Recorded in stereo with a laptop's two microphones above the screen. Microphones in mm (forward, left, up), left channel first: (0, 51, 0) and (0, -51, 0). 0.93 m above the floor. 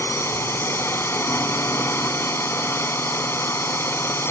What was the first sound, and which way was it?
A drone, 25° left (ahead or behind).